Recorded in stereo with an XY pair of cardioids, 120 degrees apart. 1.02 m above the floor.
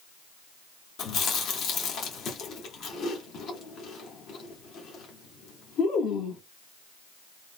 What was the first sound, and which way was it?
Chewing, 70° left.